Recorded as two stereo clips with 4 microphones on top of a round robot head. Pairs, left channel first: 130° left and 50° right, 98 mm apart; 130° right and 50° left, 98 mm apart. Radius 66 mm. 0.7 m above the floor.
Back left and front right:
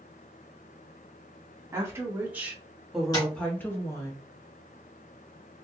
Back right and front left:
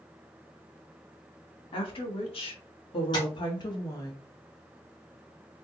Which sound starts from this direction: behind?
Tapping, at 3.1 s.